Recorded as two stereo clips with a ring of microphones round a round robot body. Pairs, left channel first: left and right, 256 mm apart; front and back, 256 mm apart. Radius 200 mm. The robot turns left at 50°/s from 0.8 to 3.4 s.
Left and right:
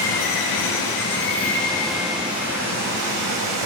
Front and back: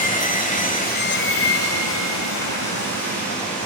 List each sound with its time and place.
0.0 s running water: 55° left, 1.3 m; by 3.7 s 75° right, 1.3 m